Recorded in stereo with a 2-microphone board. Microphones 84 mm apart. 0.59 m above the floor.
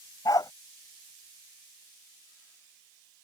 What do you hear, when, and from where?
0.2 s a dog barking: 50° left (ahead or behind)